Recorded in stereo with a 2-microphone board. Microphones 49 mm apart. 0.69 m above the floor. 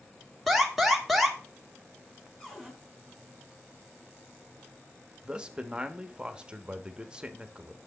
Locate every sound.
0.5 s an alarm: centre (ahead or behind), 1.7 m
2.4 s a cupboard door: 15° left (ahead or behind), 3.5 m
5.2 s a man speaking: 20° right (ahead or behind), 1.0 m